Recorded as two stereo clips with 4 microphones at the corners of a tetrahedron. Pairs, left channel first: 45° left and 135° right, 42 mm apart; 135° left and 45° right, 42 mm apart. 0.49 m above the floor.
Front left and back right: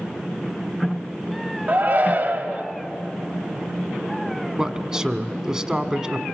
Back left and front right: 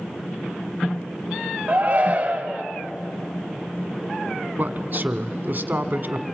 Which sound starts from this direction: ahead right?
A man speaking, at 4.6 s.